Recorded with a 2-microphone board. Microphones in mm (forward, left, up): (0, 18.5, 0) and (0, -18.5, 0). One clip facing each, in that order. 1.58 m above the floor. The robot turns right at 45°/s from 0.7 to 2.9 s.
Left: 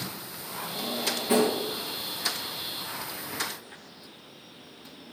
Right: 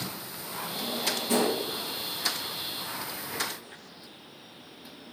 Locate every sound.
0.8 s a drawer: 5° left (ahead or behind), 3 m; by 1.6 s 35° left (ahead or behind), 3 m